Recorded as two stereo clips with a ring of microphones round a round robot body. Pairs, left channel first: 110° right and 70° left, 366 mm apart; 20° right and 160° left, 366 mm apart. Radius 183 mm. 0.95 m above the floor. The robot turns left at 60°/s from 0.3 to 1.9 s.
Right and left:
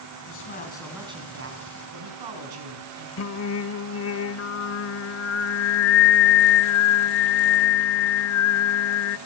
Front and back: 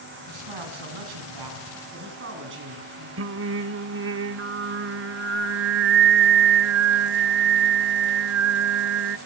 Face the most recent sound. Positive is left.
turn(degrees=-155)